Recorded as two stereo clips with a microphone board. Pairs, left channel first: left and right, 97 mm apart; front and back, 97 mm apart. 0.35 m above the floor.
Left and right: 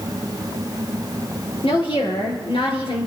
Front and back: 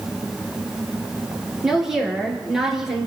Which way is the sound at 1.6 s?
95° left.